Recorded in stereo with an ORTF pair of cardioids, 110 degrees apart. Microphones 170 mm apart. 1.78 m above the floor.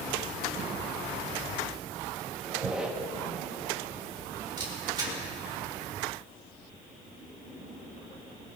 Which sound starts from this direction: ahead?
A squeak, at 2.4 s.